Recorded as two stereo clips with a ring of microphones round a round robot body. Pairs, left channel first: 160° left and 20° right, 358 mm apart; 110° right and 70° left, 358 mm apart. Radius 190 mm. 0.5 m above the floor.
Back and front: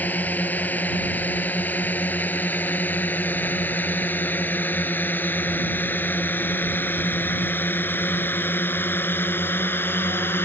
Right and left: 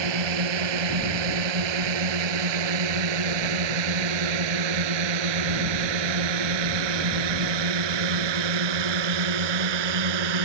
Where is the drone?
70° left; by 10.4 s 75° left.